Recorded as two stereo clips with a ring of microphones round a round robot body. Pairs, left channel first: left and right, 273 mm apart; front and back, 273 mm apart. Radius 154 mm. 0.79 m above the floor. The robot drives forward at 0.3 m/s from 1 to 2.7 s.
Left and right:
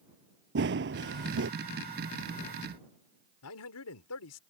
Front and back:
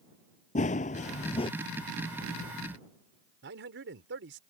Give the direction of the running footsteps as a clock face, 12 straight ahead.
2 o'clock.